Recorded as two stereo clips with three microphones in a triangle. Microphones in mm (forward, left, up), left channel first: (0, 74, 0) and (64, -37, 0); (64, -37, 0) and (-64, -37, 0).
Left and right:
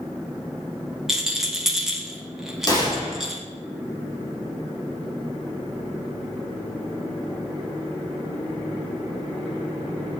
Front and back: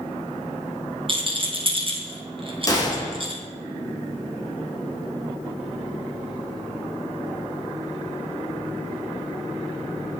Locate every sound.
1.1 s a rattle: 145° right, 1.5 m
2.7 s a gunshot: 60° left, 3 m